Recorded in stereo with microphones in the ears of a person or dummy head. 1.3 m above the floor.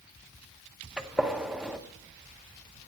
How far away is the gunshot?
About 0.8 m.